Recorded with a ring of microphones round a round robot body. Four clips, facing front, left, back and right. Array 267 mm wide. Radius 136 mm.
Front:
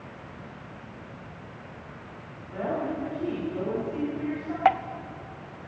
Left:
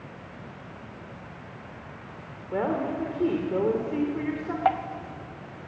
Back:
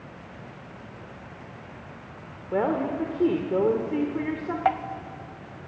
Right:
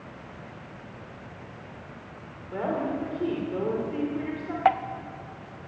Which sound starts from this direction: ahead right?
Dripping, at 4.7 s.